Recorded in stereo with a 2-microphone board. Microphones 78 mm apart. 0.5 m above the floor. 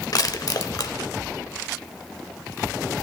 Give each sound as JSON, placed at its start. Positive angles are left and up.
{"t": 0.1, "sound": "crushing", "side_deg": 55, "distance_m": 0.6}